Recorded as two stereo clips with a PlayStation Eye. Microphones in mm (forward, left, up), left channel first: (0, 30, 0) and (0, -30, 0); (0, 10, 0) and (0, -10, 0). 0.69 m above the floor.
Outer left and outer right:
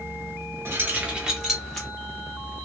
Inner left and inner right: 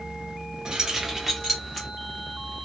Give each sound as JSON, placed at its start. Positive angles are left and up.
{"t": 0.7, "sound": "keys jangling", "side_deg": -40, "distance_m": 0.7}